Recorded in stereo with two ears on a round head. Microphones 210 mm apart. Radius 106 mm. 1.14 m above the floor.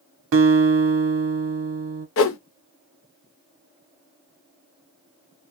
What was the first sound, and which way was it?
A guitar, 60° right (ahead or behind).